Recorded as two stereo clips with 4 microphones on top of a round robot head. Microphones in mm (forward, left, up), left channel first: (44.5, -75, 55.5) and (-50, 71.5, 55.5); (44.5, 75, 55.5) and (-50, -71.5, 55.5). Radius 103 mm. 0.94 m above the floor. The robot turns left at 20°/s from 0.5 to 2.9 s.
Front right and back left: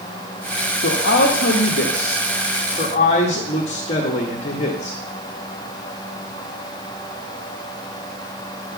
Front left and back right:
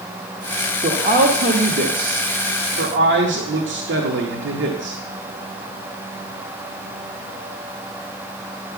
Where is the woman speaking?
70° right, 1.2 m; by 5.0 s 110° right, 1.2 m.